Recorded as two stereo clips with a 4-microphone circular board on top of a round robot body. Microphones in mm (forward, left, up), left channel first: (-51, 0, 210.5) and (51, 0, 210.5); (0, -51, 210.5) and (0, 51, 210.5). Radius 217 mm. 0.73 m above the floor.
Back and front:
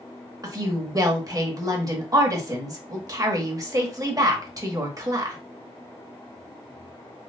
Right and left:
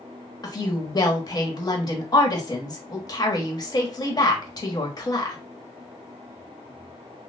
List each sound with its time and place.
0.4 s a woman speaking: 45° right, 1.4 m